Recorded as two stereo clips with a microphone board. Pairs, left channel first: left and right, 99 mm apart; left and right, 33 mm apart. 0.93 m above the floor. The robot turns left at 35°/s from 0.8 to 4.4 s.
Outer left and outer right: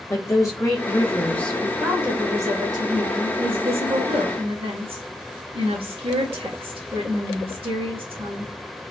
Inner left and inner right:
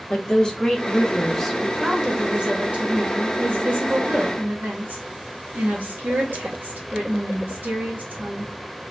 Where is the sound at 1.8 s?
10° right, 1.5 m; by 8.5 s 100° right, 1.5 m.